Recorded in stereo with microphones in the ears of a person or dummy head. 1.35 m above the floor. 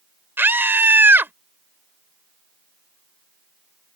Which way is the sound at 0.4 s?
10° right (ahead or behind).